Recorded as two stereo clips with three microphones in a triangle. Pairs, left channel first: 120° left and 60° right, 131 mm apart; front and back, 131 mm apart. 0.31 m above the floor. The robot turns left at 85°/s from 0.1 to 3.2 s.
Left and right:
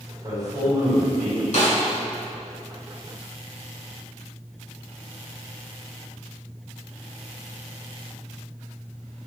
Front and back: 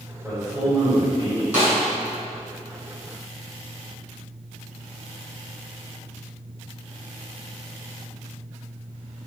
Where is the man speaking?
75° right, 1.8 m; by 1.4 s straight behind, 1.8 m.